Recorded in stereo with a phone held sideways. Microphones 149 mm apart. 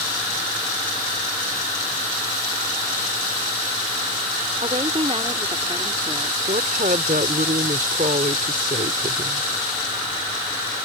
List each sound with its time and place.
4.6 s a woman speaking: 45° right (ahead or behind); by 6.4 s 20° right (ahead or behind)
6.5 s a woman speaking: 70° right (ahead or behind)